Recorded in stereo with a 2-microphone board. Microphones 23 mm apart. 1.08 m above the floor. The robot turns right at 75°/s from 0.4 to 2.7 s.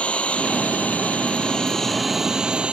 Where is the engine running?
55° left; by 2.7 s 130° right.